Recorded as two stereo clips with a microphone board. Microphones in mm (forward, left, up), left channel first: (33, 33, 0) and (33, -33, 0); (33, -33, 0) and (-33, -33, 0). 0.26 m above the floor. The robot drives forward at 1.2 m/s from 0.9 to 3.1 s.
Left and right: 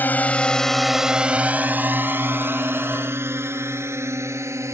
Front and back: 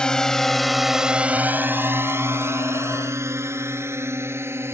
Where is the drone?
65° left; by 4.7 s 130° right.